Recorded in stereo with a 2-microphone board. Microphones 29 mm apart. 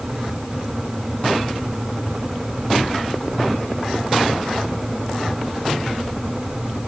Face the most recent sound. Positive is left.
No sound to turn to.